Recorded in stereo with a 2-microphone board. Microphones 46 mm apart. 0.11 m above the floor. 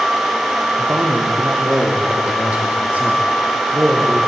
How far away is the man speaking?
About 3.5 m.